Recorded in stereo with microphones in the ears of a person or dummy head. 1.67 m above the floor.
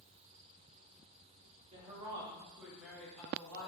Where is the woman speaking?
30° right (ahead or behind), 1.3 m; by 3.7 s 20° left (ahead or behind), 1.3 m.